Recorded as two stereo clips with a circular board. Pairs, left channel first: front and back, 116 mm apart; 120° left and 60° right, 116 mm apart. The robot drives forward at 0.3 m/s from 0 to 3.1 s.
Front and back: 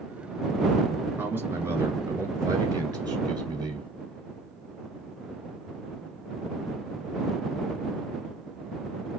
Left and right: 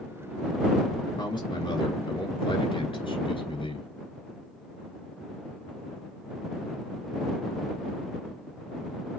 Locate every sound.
1.2 s a man speaking: 120° left, 1.5 m; by 3.9 s 140° left, 1.8 m